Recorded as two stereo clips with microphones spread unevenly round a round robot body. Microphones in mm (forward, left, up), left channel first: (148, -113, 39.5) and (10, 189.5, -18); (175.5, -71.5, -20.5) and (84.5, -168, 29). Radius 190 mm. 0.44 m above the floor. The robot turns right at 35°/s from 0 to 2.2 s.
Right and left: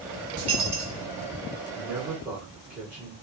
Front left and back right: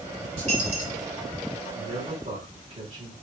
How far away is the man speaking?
About 1.5 m.